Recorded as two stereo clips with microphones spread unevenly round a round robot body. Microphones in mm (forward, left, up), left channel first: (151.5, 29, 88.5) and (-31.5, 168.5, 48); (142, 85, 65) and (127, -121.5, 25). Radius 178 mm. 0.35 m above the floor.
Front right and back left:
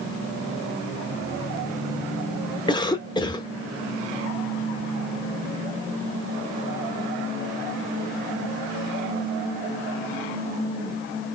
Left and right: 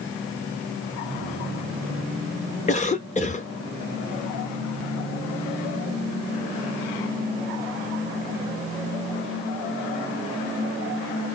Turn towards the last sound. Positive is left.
turn(degrees=40)